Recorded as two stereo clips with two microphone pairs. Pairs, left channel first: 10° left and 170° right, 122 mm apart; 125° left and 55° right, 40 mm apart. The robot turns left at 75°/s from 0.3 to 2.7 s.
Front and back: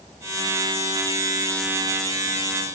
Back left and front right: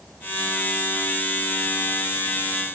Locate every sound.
Only background noise.